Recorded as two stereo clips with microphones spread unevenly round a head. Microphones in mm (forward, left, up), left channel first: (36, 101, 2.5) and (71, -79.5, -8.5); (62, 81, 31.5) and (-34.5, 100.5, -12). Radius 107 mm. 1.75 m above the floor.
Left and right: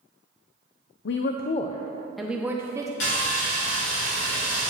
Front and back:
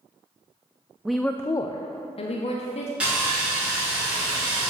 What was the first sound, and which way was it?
A woman speaking, 80° left.